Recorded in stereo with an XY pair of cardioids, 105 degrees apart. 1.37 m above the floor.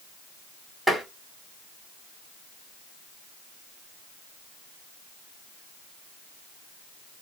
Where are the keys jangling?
No keys jangling in this recording.